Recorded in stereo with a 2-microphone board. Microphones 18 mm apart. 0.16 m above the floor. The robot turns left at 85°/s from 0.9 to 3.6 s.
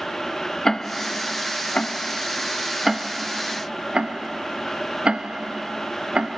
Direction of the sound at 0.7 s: 30° left (ahead or behind).